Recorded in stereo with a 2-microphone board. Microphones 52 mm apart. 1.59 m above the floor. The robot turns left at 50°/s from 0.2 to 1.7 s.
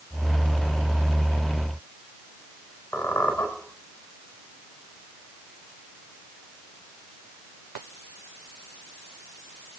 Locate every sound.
2.9 s a squeak: 60° left (ahead or behind), 4 m